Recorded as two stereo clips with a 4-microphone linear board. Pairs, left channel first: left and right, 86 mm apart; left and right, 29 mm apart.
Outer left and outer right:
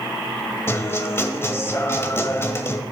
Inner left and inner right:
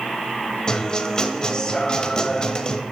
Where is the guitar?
30° left (ahead or behind), 1.5 m.